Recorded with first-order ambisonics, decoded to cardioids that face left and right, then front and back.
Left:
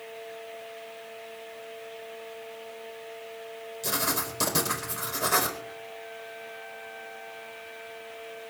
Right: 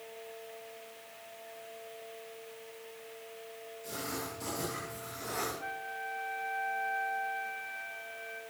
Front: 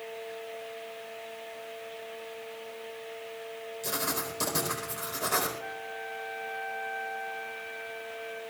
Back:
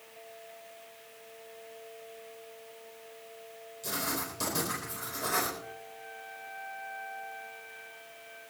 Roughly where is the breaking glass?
No breaking glass in this recording.